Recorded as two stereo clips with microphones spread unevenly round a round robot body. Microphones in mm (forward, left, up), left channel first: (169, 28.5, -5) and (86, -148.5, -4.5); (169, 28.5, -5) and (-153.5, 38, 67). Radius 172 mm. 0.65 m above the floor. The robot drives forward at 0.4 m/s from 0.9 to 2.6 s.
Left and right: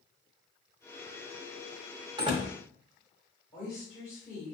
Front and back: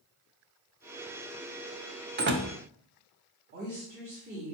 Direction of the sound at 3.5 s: 115° left.